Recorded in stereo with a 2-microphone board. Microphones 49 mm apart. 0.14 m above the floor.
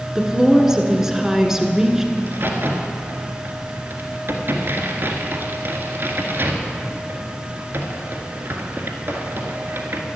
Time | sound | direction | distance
0.1 | a woman speaking | 10° right (ahead or behind) | 1.4 m
2.2 | a crack | 50° right (ahead or behind) | 1.6 m